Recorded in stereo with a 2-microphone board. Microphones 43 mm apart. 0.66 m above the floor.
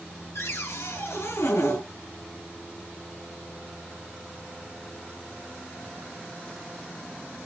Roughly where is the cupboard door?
Left.